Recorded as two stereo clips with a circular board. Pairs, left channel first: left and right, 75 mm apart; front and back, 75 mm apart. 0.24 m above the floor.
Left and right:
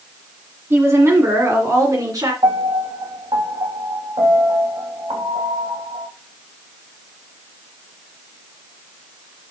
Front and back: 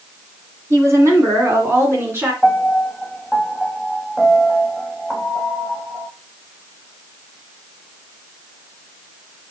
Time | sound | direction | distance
0.7 | a woman speaking | 145° right | 2 m
2.4 | a piano | 100° right | 2.5 m